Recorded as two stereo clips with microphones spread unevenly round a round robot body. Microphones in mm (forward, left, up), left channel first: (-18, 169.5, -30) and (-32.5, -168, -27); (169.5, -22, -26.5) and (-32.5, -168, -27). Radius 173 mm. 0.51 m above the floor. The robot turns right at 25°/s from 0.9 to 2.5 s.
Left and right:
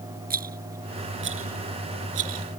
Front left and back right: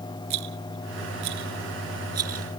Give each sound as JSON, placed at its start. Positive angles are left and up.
{"t": 0.3, "sound": "a rattle", "azimuth_deg": -155}